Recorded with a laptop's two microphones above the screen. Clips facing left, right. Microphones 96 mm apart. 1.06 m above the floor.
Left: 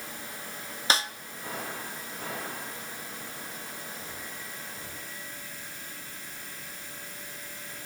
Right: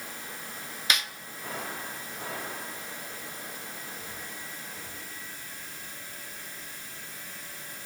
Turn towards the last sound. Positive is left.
turn(degrees=35)  # may be behind; listen again after turning